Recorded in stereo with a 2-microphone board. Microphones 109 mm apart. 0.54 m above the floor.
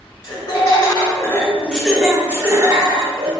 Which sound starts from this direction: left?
Laughter, at 0.2 s.